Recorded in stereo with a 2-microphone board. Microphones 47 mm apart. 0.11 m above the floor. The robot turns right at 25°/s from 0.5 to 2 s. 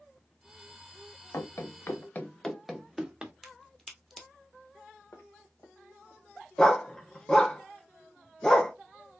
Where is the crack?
5° left (ahead or behind), 1.3 m.